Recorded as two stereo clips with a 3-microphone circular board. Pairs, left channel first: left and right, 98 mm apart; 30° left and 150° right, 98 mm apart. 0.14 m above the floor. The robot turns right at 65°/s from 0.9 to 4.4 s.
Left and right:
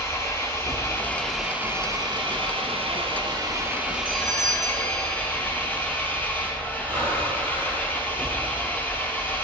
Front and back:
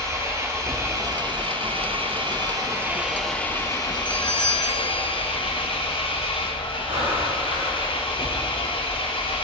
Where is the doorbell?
20° left, 2.5 m; by 5.3 s 45° left, 2.5 m.